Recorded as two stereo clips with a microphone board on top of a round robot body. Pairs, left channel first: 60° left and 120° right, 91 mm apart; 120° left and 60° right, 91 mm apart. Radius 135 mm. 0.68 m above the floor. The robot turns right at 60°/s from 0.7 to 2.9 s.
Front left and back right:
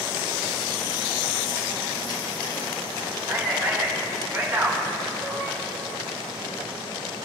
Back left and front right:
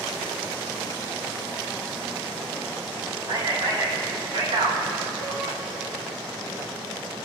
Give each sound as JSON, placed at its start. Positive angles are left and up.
{"t": 3.3, "sound": "a man speaking", "azimuth_deg": -55, "distance_m": 2.5}